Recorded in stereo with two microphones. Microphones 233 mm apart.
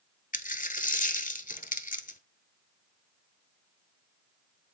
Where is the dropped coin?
35° left (ahead or behind), 0.8 m.